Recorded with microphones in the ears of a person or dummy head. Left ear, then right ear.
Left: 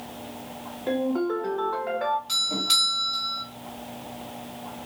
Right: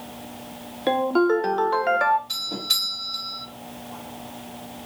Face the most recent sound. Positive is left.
turn(degrees=35)  # may be behind; listen again after turning